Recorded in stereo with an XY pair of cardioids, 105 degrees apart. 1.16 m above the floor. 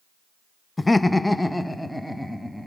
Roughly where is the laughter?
Ahead.